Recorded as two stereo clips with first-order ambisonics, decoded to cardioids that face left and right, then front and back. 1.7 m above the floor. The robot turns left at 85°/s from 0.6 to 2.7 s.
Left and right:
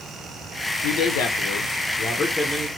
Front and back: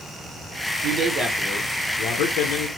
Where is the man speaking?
135° left, 0.5 m; by 2.7 s 20° right, 0.5 m.